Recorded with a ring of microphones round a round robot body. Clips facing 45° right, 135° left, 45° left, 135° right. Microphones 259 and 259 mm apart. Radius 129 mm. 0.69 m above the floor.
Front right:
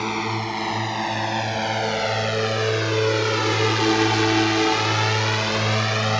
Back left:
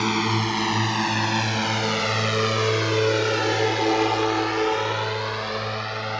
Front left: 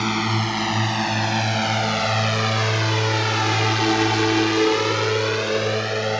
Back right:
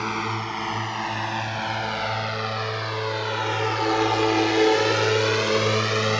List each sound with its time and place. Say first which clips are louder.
0.0 s a drone: back left 3 dB, front left 6 dB; 75° left; by 6.2 s 60° right